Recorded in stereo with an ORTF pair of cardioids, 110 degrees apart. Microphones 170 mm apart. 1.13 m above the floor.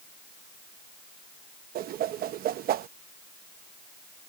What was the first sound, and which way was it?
A whoosh, 60° right.